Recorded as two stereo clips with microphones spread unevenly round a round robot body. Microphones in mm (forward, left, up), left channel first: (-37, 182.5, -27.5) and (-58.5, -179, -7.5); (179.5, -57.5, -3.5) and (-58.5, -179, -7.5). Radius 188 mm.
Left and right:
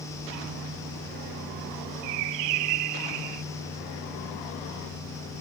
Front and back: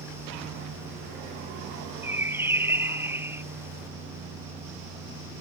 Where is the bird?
70° right.